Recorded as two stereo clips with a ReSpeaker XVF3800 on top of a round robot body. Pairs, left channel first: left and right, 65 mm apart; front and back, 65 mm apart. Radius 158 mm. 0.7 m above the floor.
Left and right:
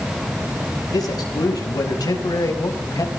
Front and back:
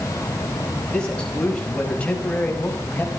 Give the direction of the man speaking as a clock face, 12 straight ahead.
9 o'clock.